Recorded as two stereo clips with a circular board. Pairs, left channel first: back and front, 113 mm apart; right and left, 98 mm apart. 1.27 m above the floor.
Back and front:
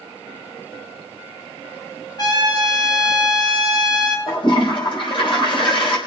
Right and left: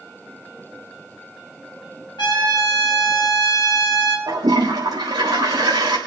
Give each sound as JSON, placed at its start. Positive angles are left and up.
{"t": 2.2, "sound": "a trumpet", "azimuth_deg": -130, "distance_m": 2.5}
{"t": 4.3, "sound": "a toilet flushing", "azimuth_deg": 140, "distance_m": 4.0}